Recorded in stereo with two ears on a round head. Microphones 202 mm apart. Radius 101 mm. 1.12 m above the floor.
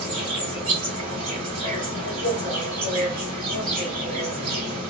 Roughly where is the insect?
Right.